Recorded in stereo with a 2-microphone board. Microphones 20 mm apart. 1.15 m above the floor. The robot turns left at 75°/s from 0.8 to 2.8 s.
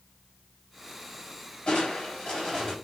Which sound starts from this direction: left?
Crushing, at 1.7 s.